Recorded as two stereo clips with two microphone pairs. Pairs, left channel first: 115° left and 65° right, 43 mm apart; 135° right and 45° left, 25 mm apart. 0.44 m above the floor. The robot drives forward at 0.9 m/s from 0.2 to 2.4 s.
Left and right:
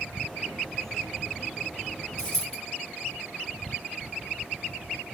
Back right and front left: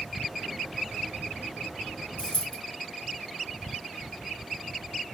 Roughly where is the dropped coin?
Behind.